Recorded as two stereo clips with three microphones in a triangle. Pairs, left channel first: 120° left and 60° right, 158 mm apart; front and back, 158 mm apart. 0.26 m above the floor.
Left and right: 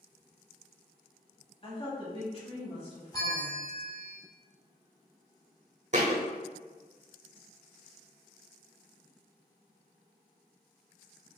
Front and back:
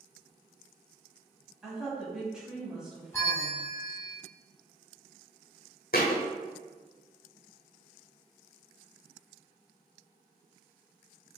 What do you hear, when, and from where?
1.6 s a woman speaking: 95° left, 1.2 m
3.1 s a bell: 65° left, 1.1 m
5.9 s a thud: 20° right, 0.8 m